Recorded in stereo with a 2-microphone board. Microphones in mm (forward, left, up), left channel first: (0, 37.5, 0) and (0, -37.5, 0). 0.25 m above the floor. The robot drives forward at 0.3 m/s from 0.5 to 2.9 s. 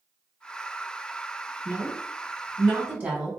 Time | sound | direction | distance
1.6 | a woman speaking | 25° right (ahead or behind) | 1.2 m